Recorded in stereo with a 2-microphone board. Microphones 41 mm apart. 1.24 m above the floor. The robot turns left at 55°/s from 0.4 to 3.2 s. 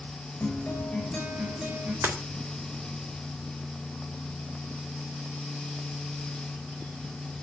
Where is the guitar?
50° left, 8 m; by 1.9 s 35° right, 8 m.